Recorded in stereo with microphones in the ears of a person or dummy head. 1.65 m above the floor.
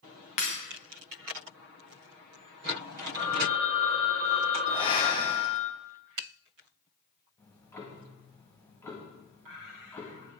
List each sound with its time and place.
0.4 s breaking glass: 30° left (ahead or behind), 1.0 m
3.1 s a phone ringing: 25° left (ahead or behind), 4.5 m
4.7 s breathing: 25° left (ahead or behind), 1.0 m
7.4 s ticking: 10° left (ahead or behind), 1.4 m